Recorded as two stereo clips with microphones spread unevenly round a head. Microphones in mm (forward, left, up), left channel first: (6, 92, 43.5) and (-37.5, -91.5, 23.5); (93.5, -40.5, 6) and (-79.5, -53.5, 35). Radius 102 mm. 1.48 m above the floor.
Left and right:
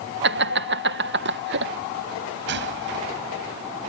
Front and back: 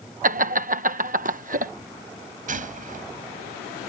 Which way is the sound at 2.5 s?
135° right.